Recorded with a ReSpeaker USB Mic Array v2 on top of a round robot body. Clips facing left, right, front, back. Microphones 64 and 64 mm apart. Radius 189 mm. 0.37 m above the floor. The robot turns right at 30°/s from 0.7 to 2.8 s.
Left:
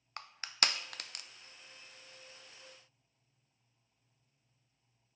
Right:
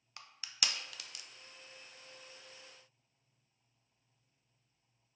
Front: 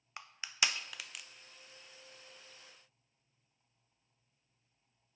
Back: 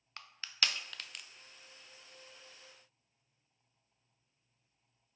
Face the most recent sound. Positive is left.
turn(degrees=135)